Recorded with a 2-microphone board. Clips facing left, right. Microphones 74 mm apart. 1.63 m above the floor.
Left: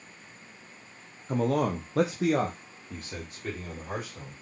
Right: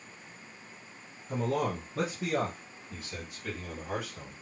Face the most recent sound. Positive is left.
turn(degrees=25)  # may be behind; listen again after turning